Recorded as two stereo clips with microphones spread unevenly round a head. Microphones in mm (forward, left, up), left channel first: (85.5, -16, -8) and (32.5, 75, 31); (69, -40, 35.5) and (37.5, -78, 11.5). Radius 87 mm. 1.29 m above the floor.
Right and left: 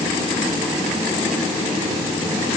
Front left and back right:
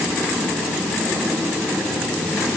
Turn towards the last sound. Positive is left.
No sound to turn to.